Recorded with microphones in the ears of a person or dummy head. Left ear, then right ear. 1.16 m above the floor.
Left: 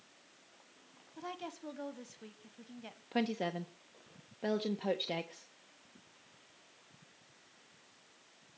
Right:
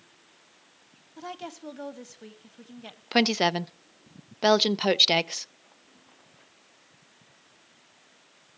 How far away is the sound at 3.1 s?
About 0.6 m.